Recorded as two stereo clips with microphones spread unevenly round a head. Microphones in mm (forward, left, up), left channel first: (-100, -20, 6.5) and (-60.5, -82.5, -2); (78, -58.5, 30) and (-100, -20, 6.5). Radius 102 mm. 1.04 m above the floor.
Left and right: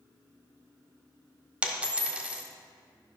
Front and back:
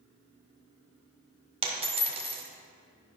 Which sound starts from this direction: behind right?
A dropped coin, at 1.6 s.